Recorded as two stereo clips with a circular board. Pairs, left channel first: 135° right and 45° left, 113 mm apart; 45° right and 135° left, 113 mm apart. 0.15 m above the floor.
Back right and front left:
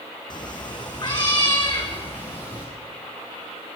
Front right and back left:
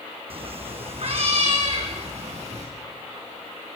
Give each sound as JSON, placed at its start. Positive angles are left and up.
{"t": 0.3, "sound": "a cat meowing", "azimuth_deg": 175, "distance_m": 2.0}